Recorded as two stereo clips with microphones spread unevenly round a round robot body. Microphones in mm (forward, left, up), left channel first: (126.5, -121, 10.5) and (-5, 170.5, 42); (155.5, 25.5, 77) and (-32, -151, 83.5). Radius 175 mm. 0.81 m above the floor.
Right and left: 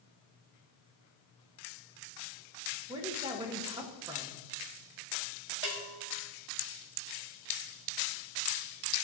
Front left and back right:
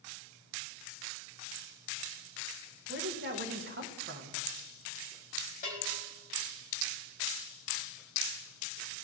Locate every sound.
2.9 s a woman speaking: 170° right, 1.1 m
5.6 s a bell: 110° left, 1.6 m